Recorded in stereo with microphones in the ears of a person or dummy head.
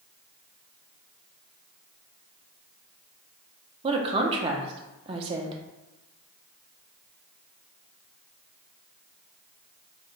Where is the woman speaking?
30° right (ahead or behind), 0.6 m.